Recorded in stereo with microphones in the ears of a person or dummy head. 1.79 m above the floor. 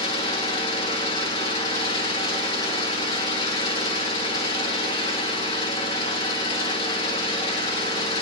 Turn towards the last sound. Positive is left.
turn(degrees=25)  # may be behind; listen again after turning